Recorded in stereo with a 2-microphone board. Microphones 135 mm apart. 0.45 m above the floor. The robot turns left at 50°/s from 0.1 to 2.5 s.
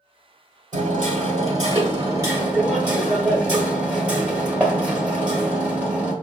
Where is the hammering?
80° right, 1.3 m; by 6.1 s 170° right, 1.3 m.